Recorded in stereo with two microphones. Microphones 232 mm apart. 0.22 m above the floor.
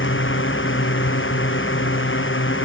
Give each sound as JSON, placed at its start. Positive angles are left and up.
{"t": 0.0, "sound": "a drone", "side_deg": 55}